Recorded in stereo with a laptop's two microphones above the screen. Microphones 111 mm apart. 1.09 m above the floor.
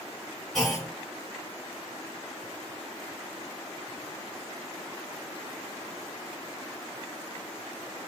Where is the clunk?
5° left (ahead or behind), 2 m.